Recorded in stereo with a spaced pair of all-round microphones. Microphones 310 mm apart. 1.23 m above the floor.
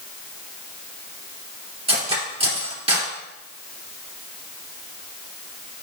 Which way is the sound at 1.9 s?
20° right (ahead or behind).